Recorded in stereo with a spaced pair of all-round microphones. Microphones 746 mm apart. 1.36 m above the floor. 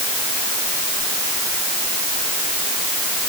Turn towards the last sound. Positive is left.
No sound to turn to.